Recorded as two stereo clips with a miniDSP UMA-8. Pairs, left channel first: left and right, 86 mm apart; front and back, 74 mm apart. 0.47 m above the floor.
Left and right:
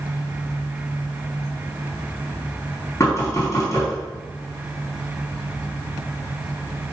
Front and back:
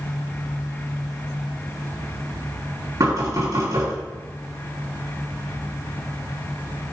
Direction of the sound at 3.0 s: 140° left.